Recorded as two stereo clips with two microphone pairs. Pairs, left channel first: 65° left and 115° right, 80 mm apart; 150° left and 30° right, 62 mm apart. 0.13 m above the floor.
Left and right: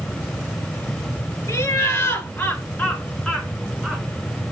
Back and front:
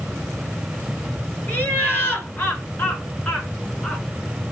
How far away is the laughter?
About 2.5 m.